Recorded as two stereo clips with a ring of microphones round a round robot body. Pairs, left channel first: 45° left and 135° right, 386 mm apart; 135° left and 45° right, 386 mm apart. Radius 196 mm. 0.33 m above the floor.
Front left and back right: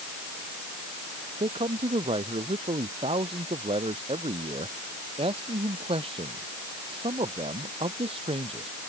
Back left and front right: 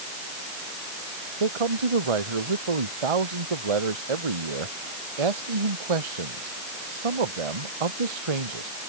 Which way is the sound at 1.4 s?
60° right.